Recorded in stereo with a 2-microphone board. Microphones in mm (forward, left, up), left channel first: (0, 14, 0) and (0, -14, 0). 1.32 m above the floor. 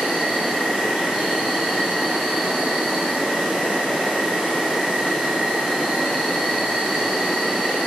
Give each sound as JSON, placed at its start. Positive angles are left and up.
{"t": 0.0, "sound": "an insect", "side_deg": -25, "distance_m": 1.4}